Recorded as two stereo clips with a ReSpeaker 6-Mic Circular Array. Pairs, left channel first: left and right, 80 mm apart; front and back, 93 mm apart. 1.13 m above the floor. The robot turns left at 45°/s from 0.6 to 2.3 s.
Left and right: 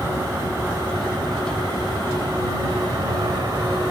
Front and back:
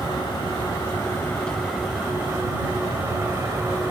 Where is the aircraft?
40° right; by 3.9 s 120° right.